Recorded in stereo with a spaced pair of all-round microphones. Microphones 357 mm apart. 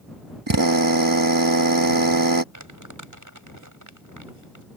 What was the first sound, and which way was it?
A drill, 65° right (ahead or behind).